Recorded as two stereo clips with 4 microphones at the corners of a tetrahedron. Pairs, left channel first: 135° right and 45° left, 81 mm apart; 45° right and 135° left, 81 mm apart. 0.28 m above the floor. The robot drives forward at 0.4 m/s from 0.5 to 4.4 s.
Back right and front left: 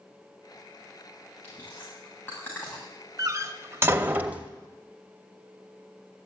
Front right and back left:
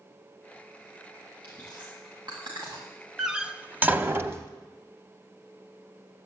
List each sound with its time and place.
1.4 s chewing: 155° left, 8.5 m; by 2.9 s 160° left, 9 m
3.2 s a door slam: 55° left, 0.8 m; by 4.5 s 105° left, 0.8 m